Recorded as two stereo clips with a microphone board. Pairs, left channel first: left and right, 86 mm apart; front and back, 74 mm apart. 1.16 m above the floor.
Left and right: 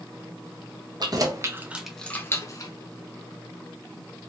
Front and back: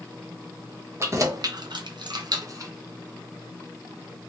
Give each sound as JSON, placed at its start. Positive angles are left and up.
{"t": 1.0, "sound": "keys jangling", "azimuth_deg": -130, "distance_m": 0.8}